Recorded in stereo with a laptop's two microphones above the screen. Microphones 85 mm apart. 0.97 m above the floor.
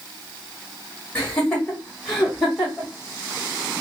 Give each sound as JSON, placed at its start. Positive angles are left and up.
{"t": 1.1, "sound": "laughter", "side_deg": 15, "distance_m": 1.3}